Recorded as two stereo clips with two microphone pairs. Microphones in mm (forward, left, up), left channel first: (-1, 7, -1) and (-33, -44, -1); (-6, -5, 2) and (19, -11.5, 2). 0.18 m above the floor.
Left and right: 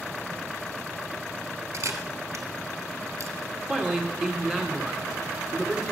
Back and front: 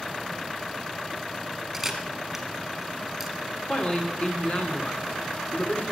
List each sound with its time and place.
1.7 s a camera shutter: 100° right, 2.5 m
3.7 s a man speaking: 170° left, 2.5 m